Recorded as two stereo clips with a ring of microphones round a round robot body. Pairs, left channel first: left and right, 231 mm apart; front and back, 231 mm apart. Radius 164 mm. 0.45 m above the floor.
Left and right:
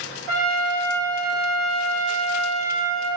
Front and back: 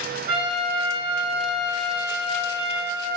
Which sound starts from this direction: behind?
A trumpet, at 0.3 s.